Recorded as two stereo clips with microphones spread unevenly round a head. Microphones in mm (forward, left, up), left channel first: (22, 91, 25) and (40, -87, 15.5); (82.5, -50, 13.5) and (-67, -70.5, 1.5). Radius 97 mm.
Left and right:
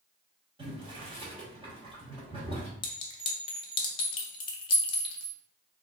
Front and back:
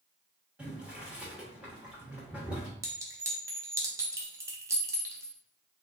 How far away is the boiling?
About 1.1 m.